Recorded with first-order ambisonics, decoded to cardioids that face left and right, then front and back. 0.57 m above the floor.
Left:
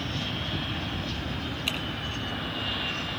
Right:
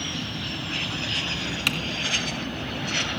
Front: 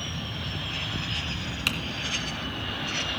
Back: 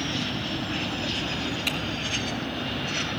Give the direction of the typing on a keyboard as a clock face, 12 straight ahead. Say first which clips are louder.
Right 5 dB, front 2 dB; 2 o'clock.